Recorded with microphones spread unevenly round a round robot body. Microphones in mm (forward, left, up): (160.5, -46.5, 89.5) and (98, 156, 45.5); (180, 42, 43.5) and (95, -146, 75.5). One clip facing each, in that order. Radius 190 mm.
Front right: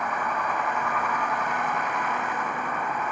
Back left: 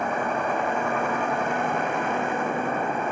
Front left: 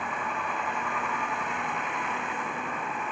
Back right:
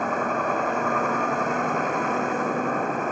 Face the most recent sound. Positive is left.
turn(degrees=180)